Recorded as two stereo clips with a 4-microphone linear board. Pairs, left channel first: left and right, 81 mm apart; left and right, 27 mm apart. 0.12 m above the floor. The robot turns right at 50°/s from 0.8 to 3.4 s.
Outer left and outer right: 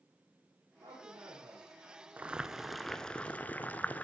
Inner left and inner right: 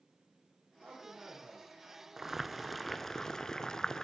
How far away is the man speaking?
About 6 m.